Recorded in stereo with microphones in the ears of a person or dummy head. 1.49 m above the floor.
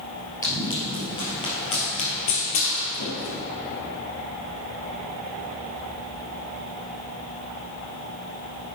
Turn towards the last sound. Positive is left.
turn(degrees=50)  # may be behind; listen again after turning